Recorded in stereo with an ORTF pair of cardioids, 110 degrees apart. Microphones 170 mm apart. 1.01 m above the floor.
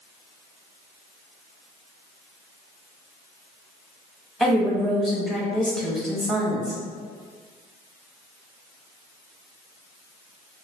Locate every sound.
4.4 s a woman speaking: straight ahead, 1.0 m